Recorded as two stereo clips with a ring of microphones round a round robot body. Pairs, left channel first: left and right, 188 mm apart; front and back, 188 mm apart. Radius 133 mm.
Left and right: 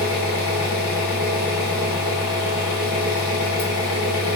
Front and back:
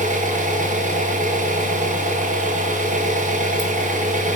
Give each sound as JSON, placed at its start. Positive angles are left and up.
{"t": 0.0, "sound": "an engine running", "azimuth_deg": 130, "distance_m": 2.0}